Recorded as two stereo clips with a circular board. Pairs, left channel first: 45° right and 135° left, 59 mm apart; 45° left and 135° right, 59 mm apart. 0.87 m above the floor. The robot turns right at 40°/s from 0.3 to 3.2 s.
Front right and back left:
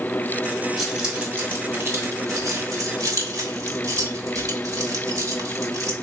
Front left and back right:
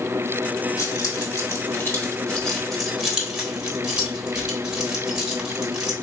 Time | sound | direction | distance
0.8 | keys jangling | 45° left | 1.1 m